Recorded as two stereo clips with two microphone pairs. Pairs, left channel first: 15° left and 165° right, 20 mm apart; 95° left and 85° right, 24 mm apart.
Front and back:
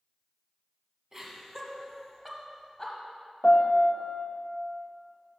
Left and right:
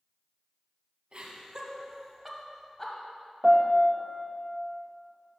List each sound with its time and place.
1.1 s laughter: 100° right, 1.6 m; by 3.0 s 75° left, 1.1 m
3.4 s a piano: 15° right, 1.1 m